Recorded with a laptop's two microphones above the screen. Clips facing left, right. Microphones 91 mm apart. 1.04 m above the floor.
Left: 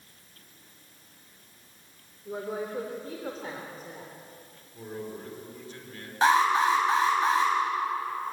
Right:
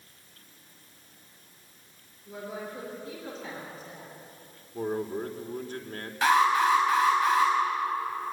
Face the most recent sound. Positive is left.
turn(degrees=30)  # may be behind; listen again after turning